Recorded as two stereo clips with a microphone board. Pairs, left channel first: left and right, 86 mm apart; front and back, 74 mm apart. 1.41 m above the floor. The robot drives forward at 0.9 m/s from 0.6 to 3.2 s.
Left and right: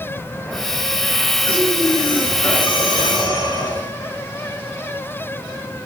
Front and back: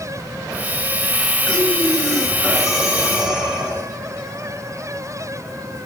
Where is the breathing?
75° left, 3.5 m; by 4.0 s 100° left, 3.5 m.